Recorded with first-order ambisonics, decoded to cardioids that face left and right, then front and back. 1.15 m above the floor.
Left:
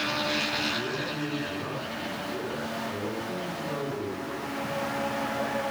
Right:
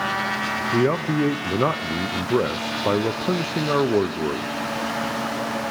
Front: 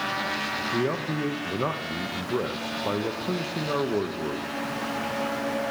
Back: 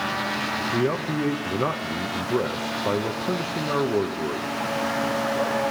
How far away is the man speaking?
About 0.6 m.